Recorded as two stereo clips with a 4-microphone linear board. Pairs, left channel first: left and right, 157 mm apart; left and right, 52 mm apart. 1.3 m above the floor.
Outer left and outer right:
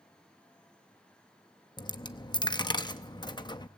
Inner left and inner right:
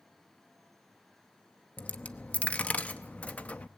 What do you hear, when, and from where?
1.8 s a dropped coin: 30° left (ahead or behind), 0.7 m